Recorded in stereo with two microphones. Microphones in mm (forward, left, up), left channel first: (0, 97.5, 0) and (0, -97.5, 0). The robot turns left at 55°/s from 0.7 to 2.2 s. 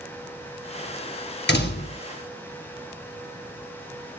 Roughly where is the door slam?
Left.